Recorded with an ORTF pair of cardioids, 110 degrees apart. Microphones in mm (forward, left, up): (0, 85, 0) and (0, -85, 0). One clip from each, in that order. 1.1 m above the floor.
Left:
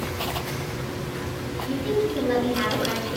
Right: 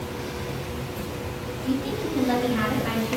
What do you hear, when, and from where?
1.6 s a woman speaking: 50° right, 1.8 m